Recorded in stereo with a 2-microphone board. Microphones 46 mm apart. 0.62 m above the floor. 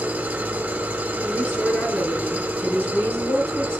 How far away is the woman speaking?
About 9.5 m.